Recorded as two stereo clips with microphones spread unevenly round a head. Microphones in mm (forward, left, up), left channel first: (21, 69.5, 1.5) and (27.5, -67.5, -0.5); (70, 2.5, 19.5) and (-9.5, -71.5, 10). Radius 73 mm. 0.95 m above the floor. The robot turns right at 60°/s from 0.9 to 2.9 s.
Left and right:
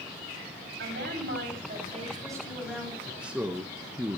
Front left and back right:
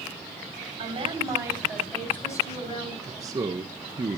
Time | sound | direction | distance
0.8 | a woman speaking | 105° right | 5 m
3.0 | a man speaking | 165° right | 0.6 m